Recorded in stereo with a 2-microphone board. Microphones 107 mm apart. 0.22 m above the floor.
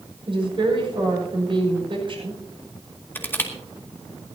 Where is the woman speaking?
50° right (ahead or behind), 6.5 m.